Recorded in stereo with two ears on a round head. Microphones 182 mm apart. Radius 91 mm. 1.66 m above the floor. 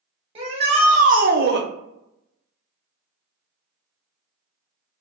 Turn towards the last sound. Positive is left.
turn(degrees=-60)  # may be behind; listen again after turning